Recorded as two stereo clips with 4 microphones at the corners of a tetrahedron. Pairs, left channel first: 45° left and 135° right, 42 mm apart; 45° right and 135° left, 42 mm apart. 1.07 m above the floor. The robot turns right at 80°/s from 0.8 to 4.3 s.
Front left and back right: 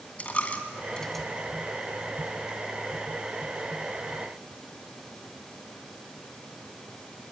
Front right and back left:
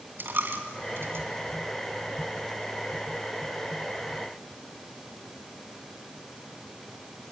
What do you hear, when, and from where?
0.2 s a dropped coin: 100° left, 2.5 m; by 1.2 s 140° left, 2.5 m